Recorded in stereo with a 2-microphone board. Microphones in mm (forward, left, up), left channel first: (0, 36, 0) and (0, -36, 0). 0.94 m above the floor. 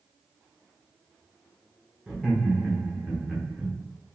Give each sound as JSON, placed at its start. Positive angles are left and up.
{"t": 2.1, "sound": "laughter", "side_deg": -10, "distance_m": 0.8}